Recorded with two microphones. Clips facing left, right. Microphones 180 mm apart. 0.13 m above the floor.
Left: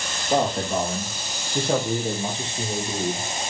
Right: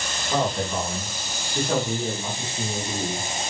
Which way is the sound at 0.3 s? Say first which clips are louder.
Left 3 dB; 40° left (ahead or behind).